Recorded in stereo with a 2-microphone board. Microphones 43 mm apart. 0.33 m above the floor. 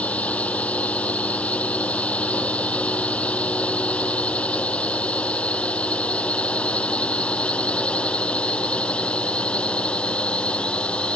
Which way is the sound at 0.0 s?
30° left (ahead or behind).